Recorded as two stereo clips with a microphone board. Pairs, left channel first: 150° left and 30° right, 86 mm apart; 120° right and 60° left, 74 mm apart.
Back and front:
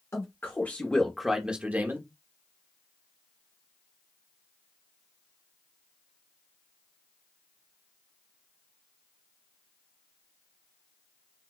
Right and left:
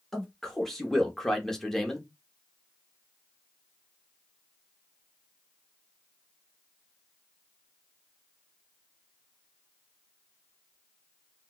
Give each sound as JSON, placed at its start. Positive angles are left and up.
{"t": 0.1, "sound": "a man speaking", "azimuth_deg": 160, "distance_m": 1.0}